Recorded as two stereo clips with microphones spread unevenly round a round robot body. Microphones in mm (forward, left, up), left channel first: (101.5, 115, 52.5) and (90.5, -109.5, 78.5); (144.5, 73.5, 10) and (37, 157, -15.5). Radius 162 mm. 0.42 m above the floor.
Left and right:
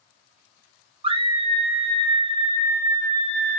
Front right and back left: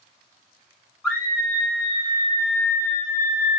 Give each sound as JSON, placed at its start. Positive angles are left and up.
{"t": 1.0, "sound": "a scream", "azimuth_deg": -140, "distance_m": 0.9}